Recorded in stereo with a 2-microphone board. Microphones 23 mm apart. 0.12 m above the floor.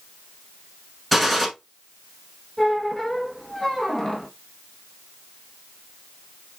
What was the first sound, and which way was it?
A gunshot, centre (ahead or behind).